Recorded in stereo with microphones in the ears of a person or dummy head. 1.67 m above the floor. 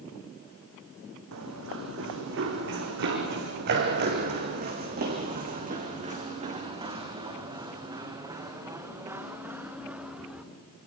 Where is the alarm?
No alarm in this recording.